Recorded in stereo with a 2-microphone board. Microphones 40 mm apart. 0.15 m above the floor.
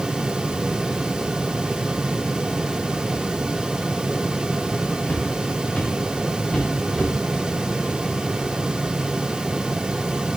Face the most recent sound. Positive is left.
turn(degrees=10)  # may be behind; listen again after turning